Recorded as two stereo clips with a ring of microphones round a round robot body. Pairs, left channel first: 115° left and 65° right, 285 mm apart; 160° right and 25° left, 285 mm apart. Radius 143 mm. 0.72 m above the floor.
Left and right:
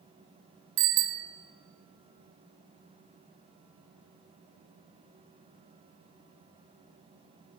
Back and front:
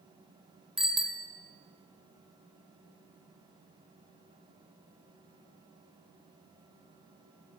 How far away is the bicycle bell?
About 2 m.